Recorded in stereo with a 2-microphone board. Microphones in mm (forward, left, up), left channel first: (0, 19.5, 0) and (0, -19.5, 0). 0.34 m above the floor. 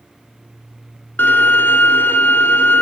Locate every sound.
1.2 s a violin: 70° left (ahead or behind), 0.9 m